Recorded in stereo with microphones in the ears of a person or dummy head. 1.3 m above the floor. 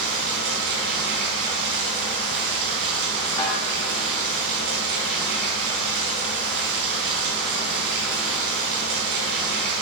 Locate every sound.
0.0 s running water: 60° right (ahead or behind), 3.5 m
3.4 s a snare drum: 15° left (ahead or behind), 3 m